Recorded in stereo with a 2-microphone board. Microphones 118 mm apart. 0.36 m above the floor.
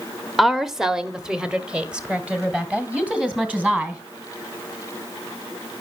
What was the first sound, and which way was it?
A woman speaking, centre (ahead or behind).